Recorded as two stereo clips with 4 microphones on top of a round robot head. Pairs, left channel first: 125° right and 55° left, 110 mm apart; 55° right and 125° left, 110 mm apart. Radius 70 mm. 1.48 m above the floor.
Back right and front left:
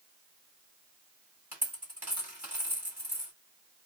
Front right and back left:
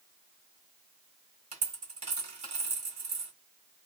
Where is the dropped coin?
125° left, 1.6 m.